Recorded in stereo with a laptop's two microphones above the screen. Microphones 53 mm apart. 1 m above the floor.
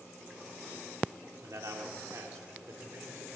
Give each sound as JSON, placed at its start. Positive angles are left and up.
{"t": 1.4, "sound": "a man speaking", "side_deg": -70, "distance_m": 2.5}